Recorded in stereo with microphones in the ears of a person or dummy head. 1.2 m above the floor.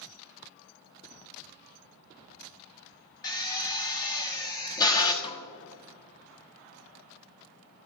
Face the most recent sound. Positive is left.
turn(degrees=25)  # may be behind; listen again after turning